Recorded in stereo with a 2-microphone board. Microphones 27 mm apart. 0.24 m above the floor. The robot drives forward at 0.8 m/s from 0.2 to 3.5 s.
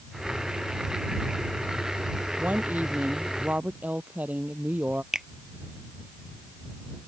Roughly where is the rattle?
I don't hear a rattle.